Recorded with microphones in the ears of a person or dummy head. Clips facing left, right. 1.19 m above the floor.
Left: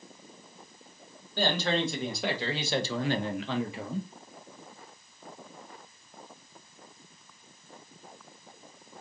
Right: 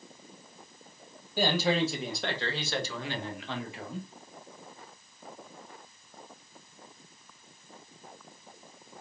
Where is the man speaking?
10° right (ahead or behind), 1.3 m; by 4.1 s 70° left (ahead or behind), 0.7 m.